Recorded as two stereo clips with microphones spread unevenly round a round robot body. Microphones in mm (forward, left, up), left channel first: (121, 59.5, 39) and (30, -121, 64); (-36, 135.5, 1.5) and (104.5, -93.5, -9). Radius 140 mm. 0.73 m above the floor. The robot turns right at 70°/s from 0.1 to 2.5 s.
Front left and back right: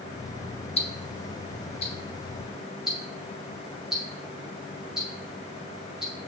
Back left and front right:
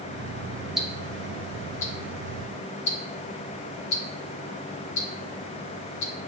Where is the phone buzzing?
No phone buzzing in this recording.